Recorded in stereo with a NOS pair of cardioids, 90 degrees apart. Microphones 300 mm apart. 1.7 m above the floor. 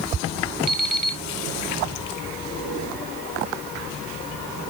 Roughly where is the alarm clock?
Ahead.